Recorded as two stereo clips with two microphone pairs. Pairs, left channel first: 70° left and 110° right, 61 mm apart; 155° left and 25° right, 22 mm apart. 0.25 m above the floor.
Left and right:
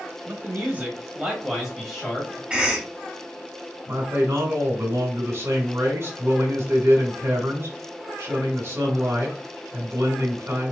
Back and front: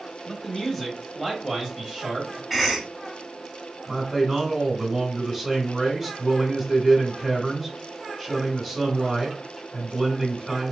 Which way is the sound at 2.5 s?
85° right.